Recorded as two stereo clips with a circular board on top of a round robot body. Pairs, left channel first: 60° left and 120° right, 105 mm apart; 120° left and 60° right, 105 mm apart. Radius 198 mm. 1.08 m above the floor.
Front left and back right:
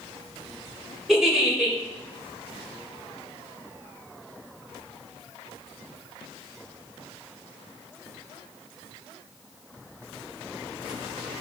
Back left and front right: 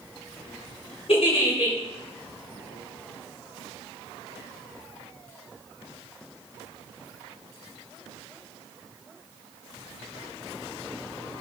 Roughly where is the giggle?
Behind left.